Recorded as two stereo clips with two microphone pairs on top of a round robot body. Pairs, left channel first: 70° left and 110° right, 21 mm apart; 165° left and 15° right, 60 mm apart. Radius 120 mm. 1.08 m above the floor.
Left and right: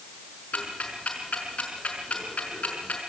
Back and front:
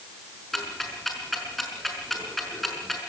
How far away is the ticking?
About 5 m.